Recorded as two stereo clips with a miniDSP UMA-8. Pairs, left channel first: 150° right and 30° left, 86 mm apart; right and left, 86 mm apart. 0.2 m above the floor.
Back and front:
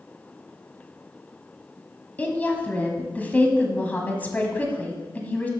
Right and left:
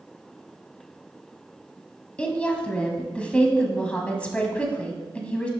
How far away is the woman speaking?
About 1.3 m.